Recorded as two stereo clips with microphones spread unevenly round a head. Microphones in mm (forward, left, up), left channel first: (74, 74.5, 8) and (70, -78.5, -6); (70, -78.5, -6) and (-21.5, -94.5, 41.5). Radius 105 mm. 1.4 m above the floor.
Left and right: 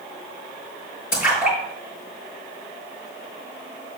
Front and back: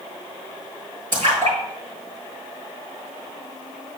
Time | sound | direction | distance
1.1 | a splash | 130° left | 5.5 m